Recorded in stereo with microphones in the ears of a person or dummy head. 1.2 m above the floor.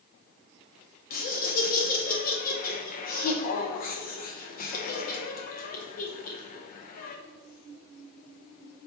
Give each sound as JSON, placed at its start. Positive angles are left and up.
{"t": 1.1, "sound": "laughter", "side_deg": 45, "distance_m": 0.6}